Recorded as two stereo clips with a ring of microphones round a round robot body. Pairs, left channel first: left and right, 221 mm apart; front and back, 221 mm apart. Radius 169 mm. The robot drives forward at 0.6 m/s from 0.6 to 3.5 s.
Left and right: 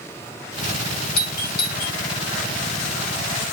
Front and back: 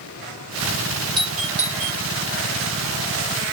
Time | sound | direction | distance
1.2 | a doorbell | 115° left | 1.8 m